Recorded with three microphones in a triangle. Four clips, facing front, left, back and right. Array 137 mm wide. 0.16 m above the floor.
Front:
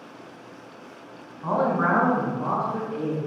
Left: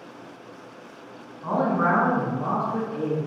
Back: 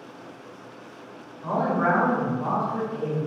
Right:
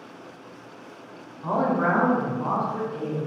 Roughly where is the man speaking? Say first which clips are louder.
Even, front 1 dB; ahead.